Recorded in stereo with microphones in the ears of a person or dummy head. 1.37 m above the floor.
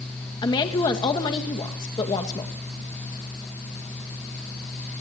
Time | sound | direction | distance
0.4 | a woman speaking | 20° left (ahead or behind) | 2 m